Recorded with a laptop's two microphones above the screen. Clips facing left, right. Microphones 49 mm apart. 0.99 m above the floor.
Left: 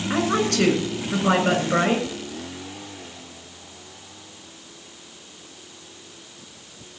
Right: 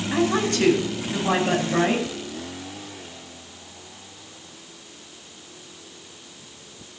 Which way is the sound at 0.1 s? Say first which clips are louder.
Even; 70° left (ahead or behind).